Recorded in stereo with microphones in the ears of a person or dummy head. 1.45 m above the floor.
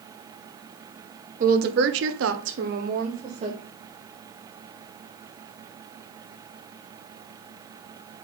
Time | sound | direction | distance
1.4 | a woman speaking | 45° right (ahead or behind) | 1.2 m